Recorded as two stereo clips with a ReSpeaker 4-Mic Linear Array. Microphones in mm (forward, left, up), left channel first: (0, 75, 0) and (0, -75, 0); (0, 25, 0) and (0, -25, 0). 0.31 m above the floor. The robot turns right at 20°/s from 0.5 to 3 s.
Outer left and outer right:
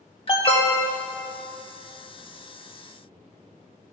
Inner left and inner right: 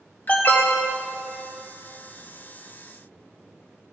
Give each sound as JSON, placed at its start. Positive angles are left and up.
{"t": 0.3, "sound": "an alarm", "side_deg": 40, "distance_m": 1.3}